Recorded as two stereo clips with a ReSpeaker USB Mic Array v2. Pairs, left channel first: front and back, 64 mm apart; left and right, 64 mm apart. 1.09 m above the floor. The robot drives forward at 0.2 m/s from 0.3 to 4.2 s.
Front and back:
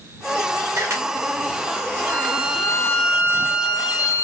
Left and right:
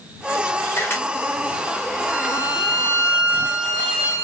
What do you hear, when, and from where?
0.7 s a camera shutter: 140° left, 0.9 m
2.1 s a violin: 115° left, 2.5 m; by 4.2 s 125° left, 3 m